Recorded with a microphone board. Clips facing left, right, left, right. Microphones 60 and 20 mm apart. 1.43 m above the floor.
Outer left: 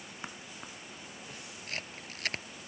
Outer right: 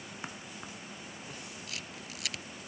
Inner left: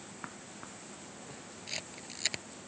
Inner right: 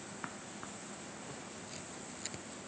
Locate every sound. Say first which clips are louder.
1.7 s a camera shutter: outer left 2 dB, inner left 5 dB; 40° left (ahead or behind)